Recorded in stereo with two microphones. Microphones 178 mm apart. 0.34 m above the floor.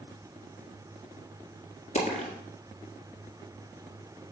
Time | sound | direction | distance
1.9 | a dropped coin | 45° left (ahead or behind) | 1.6 m